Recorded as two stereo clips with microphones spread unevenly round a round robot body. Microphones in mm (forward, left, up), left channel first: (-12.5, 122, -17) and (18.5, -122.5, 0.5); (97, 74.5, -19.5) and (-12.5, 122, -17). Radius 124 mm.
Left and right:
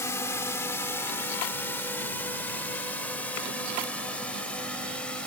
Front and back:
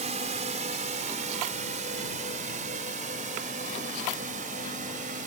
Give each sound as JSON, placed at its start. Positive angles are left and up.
{"t": 0.0, "sound": "a drone", "azimuth_deg": 175}